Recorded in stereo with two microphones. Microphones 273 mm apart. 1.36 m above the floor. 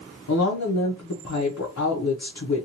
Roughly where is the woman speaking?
Left.